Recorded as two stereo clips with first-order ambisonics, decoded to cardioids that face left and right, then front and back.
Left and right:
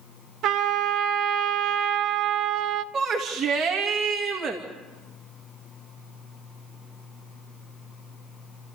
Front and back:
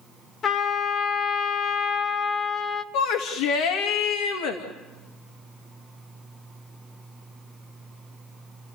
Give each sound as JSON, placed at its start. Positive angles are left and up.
{"t": 0.4, "sound": "a trumpet", "azimuth_deg": -60, "distance_m": 1.1}
{"t": 2.9, "sound": "a shout", "azimuth_deg": -20, "distance_m": 2.0}